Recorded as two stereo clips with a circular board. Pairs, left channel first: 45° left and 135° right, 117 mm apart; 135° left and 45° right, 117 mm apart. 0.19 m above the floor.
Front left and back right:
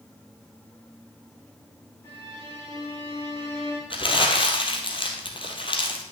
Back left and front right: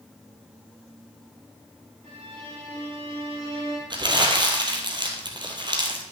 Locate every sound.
2.0 s a violin: 20° right, 3.5 m
3.9 s crumpling: 5° left, 1.6 m